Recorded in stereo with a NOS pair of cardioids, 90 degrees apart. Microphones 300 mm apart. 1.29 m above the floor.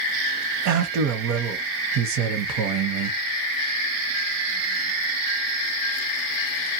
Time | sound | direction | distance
0.7 | a man speaking | 70° right | 0.8 m